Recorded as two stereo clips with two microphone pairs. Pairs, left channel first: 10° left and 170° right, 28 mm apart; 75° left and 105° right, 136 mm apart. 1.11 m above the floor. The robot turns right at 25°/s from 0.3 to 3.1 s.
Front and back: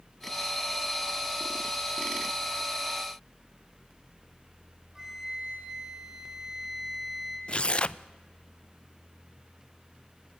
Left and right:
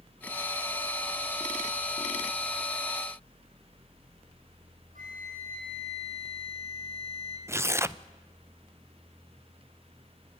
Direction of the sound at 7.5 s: 30° right.